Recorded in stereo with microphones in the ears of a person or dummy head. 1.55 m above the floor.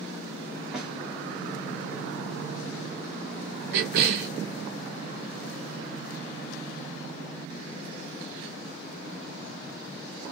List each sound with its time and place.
0.7 s a snare drum: 10° right (ahead or behind), 1.9 m
3.7 s a cough: 65° right (ahead or behind), 0.7 m